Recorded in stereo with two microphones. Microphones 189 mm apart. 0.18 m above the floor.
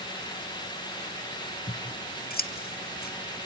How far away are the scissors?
About 0.7 m.